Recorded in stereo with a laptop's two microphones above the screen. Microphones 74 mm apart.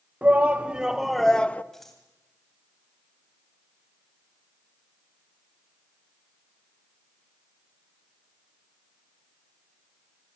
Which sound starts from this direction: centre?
Scissors, at 1.7 s.